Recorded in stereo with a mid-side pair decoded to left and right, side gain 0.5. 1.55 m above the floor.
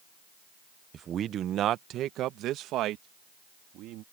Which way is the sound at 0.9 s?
50° right.